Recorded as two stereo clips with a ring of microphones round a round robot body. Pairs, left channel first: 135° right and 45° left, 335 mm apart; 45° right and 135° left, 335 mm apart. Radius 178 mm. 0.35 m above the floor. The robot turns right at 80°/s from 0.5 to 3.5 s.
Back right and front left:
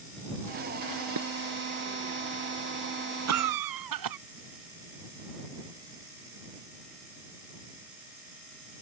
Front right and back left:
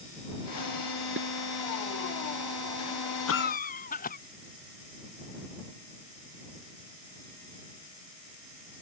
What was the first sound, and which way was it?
Dishes clattering, 80° left.